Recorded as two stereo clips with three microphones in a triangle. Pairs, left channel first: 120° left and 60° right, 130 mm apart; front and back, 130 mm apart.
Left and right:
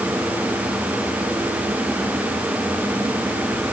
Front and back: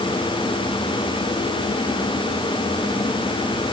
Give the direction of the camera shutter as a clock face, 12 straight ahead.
I don't hear a camera shutter.